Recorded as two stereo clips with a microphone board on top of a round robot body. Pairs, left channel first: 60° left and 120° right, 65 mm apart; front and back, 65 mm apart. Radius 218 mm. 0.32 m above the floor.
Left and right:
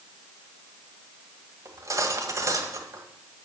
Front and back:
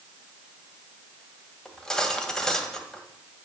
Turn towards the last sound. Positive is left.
turn(degrees=-80)